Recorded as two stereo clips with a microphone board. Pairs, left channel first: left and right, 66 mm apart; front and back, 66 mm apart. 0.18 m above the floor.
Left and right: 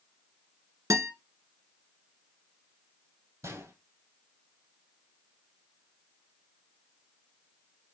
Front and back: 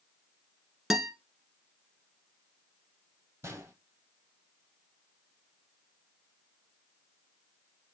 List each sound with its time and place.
0.9 s a guitar: 100° right, 1.5 m
3.4 s a gunshot: 130° right, 2.5 m